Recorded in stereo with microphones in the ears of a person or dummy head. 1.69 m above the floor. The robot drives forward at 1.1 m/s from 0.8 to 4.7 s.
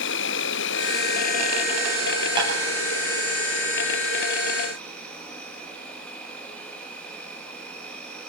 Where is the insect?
60° left (ahead or behind), 0.8 m; by 8.3 s 10° left (ahead or behind), 4.5 m.